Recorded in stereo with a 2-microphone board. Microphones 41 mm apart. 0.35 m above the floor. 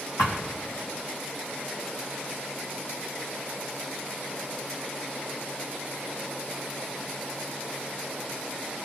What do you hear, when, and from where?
0.2 s a thud: 80° left, 3 m